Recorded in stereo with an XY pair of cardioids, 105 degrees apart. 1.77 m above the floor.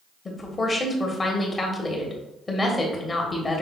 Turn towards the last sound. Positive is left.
turn(degrees=25)